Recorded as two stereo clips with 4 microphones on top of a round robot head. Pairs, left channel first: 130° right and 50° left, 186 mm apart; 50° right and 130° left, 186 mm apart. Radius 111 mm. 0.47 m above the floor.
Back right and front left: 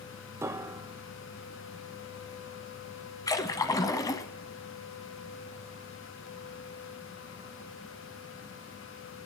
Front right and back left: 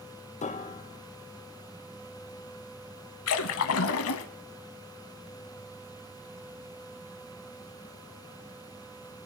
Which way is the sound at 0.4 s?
20° right.